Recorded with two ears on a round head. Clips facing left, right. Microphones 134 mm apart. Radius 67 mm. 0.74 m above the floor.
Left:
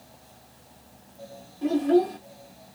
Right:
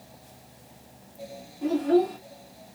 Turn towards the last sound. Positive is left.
turn(degrees=-10)  # may be behind; listen again after turning